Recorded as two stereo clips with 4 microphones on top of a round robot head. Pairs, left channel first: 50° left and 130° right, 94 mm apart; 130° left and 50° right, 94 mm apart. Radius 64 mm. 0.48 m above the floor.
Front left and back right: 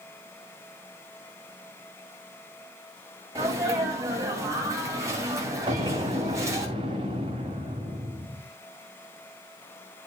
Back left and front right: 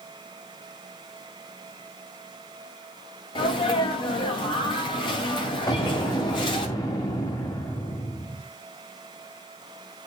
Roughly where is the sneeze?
Behind.